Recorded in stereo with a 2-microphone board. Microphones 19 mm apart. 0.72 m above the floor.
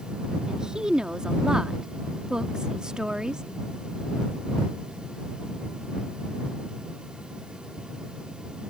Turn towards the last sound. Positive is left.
turn(degrees=-50)  # may be behind; listen again after turning